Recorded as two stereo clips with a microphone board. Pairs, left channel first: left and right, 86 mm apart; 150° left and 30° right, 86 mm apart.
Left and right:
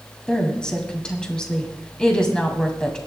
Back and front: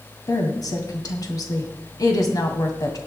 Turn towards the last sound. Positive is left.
turn(degrees=165)